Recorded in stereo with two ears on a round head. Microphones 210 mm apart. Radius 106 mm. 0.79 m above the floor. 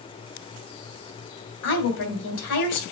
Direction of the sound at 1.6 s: 75° left (ahead or behind).